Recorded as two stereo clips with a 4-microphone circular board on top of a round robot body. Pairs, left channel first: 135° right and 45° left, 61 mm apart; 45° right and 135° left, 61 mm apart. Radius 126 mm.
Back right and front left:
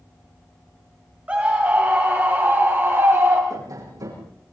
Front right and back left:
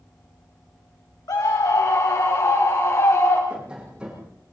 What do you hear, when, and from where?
1.3 s a scream: 25° right, 3.5 m; by 3.4 s 5° right, 3.5 m
3.5 s tapping: 60° left, 9 m